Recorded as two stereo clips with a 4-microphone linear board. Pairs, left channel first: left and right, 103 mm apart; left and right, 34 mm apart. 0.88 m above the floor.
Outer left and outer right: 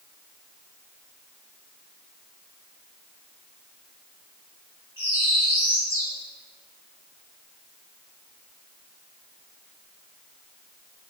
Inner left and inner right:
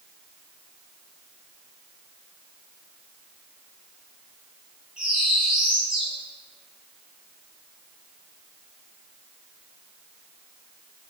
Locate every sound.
5.0 s a bird: 20° right (ahead or behind), 1.3 m